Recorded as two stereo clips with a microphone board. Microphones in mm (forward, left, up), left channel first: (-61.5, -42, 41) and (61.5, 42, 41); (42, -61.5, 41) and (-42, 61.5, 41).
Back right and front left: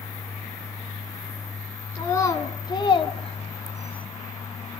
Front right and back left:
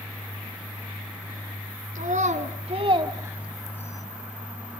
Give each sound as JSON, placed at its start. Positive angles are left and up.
{"t": 1.9, "sound": "a child speaking", "azimuth_deg": 145, "distance_m": 2.0}